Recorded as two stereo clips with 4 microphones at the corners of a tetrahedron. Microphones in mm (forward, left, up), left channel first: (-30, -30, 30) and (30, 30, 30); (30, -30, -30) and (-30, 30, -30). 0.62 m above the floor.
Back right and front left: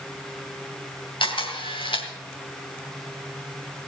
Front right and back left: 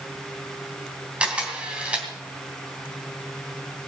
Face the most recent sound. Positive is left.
turn(degrees=-150)